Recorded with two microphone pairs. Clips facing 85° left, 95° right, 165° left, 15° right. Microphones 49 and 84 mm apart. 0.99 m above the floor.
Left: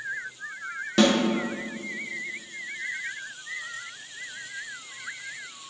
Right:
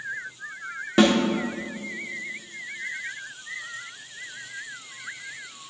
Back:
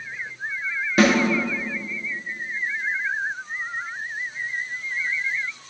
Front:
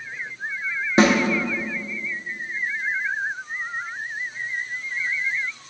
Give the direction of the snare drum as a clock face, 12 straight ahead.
2 o'clock.